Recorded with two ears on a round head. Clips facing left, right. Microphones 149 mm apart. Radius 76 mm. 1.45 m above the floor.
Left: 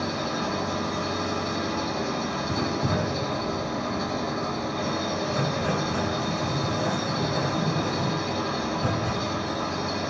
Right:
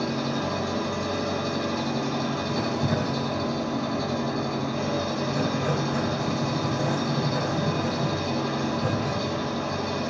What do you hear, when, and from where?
0.0 s an engine running: 45° right (ahead or behind), 6 m
2.5 s writing: 10° right (ahead or behind), 3.5 m